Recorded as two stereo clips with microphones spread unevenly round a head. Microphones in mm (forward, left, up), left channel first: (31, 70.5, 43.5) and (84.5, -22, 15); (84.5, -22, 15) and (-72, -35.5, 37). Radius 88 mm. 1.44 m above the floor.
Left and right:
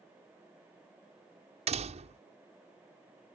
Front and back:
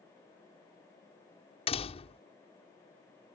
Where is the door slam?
45° right.